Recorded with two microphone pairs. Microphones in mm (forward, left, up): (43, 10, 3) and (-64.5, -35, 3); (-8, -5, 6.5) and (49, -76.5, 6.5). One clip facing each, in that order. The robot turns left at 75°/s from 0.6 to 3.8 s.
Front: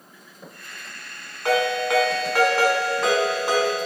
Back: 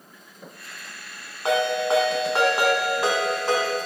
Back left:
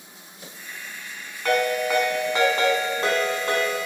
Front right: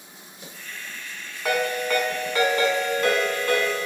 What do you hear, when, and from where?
1.4 s a ringtone: 120° right, 0.9 m; by 3.9 s 65° left, 0.9 m